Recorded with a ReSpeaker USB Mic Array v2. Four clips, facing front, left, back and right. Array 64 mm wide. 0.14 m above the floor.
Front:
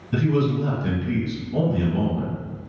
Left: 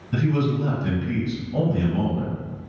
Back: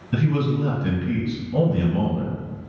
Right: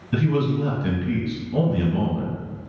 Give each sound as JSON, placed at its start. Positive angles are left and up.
{"t": 0.1, "sound": "a man speaking", "azimuth_deg": -125, "distance_m": 1.4}